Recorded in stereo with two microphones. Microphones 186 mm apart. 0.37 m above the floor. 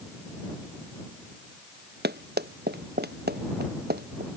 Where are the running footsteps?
60° right (ahead or behind).